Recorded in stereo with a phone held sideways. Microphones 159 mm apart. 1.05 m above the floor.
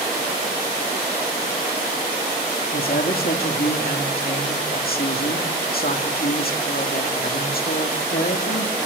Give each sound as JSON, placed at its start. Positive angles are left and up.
{"t": 2.7, "sound": "a woman speaking", "side_deg": 60, "distance_m": 2.5}